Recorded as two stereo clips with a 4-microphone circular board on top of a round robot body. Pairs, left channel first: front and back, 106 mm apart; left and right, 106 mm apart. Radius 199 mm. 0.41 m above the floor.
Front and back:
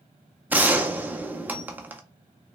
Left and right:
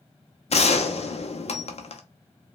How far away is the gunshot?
About 0.7 m.